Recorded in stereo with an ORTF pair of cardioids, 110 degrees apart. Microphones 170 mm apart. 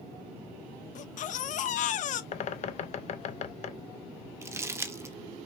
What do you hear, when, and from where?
0.9 s a baby crying: 50° left, 0.6 m
2.3 s a bird: 45° left, 0.6 m
4.4 s crumpling: 15° right, 0.7 m